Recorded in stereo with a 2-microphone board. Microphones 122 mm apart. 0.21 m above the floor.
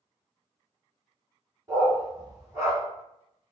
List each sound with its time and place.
1.7 s a dog barking: 25° right (ahead or behind), 1.4 m